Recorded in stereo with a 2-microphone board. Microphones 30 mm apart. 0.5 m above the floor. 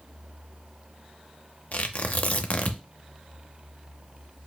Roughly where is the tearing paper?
Left.